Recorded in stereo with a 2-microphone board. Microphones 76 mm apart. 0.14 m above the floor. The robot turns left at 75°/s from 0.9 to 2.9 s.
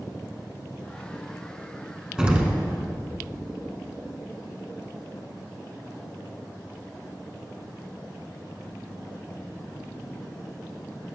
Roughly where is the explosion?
Ahead.